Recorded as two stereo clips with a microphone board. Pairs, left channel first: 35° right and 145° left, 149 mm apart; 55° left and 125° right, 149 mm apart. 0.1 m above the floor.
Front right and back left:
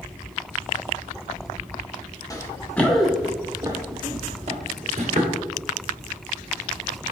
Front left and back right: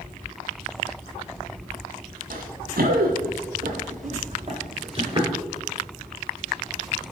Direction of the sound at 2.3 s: 100° right.